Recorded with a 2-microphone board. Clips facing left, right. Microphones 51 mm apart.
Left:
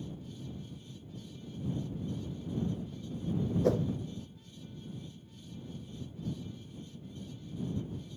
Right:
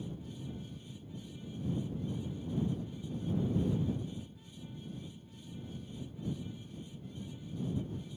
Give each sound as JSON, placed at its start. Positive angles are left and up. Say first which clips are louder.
{"t": 3.6, "sound": "a whoosh", "louder": "left 6 dB", "side_deg": 85}